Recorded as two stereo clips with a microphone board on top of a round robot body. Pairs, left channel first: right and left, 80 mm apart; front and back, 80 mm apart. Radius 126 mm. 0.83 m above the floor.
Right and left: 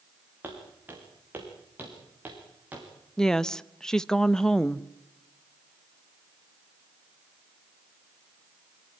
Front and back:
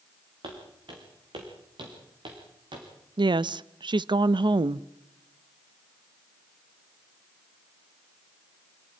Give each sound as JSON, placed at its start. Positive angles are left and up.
{"t": 0.4, "sound": "footsteps", "azimuth_deg": 155, "distance_m": 6.0}
{"t": 3.2, "sound": "a woman speaking", "azimuth_deg": -175, "distance_m": 0.7}